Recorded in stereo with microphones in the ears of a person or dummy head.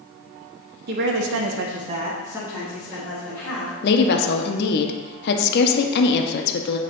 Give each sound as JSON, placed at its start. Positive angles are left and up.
{"t": 0.9, "sound": "a woman speaking", "side_deg": -50, "distance_m": 1.2}
{"t": 3.8, "sound": "a woman speaking", "side_deg": 65, "distance_m": 0.8}